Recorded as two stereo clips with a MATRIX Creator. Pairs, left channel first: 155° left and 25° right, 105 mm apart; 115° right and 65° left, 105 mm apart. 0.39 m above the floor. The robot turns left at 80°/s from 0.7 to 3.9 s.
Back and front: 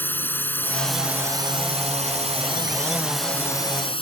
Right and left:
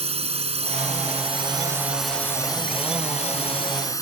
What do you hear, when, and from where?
0.0 s a drone: 85° left; by 4.0 s 170° right